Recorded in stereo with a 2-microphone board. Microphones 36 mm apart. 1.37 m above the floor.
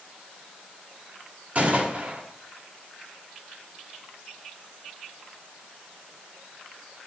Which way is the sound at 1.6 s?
40° right (ahead or behind).